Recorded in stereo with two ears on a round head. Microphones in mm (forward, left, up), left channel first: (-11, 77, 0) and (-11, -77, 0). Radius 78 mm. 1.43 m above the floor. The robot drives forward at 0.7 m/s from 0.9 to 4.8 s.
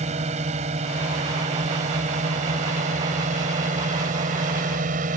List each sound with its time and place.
0.0 s a drone: 40° right (ahead or behind); by 5.2 s 45° right (ahead or behind)